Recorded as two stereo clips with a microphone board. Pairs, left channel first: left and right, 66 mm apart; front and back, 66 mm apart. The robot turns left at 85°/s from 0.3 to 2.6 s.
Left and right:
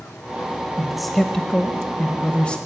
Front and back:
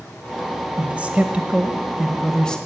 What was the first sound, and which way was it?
A man speaking, 160° right.